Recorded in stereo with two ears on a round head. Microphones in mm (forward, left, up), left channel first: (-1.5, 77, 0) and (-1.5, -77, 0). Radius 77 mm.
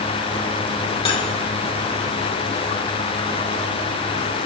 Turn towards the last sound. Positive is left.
turn(degrees=35)  # may be behind; listen again after turning